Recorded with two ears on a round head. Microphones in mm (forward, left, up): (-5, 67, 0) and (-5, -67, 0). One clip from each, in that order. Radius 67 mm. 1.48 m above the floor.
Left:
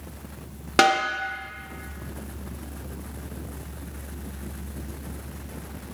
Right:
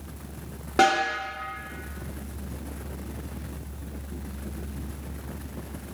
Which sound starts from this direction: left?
A snare drum, at 0.8 s.